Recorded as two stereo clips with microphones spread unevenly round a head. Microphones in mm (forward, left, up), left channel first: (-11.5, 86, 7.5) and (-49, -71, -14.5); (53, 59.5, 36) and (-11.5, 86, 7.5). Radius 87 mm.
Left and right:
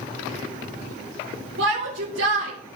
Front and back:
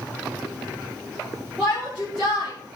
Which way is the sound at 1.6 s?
110° right.